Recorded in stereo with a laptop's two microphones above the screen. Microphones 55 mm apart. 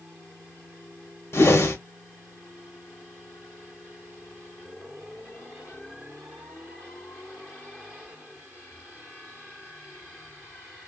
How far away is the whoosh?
About 0.7 m.